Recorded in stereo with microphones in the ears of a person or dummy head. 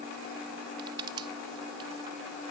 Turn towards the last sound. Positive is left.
turn(degrees=-30)  # may be behind; listen again after turning